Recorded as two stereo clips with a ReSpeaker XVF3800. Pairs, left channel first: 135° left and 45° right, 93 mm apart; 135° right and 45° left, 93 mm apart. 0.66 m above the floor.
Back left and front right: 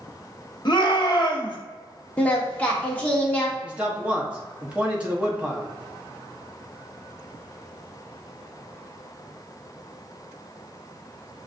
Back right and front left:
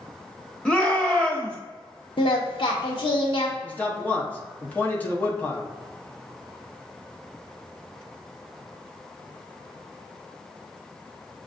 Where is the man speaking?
95° right, 0.9 m.